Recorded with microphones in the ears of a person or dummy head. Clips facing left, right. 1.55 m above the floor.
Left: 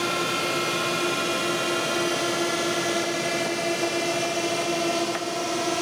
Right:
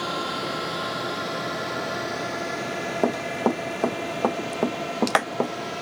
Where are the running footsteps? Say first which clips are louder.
Right 3 dB; 75° right (ahead or behind).